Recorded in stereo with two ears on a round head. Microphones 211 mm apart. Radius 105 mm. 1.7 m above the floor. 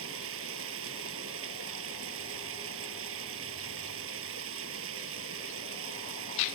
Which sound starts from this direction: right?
Running water, at 0.0 s.